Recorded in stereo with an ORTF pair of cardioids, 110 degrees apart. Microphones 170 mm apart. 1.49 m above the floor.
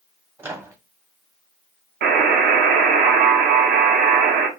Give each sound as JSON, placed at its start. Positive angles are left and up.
{"t": 0.4, "sound": "a microwave", "azimuth_deg": -15, "distance_m": 0.8}
{"t": 2.0, "sound": "a buzzer", "azimuth_deg": -65, "distance_m": 1.0}